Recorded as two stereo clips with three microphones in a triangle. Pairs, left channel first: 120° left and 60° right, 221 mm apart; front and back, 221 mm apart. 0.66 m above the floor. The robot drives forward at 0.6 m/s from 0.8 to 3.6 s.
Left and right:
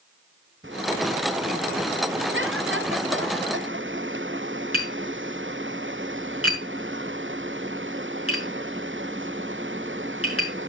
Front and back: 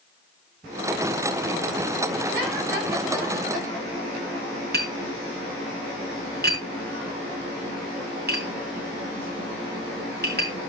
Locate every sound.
4.7 s tapping: 135° left, 6.5 m